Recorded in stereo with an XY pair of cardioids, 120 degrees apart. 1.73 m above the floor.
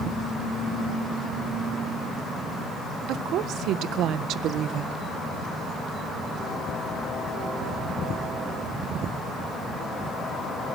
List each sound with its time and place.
3.1 s a woman speaking: 70° right, 1.6 m